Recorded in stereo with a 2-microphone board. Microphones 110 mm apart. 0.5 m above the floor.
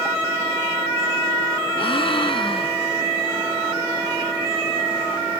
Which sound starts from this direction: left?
A gasp, at 1.8 s.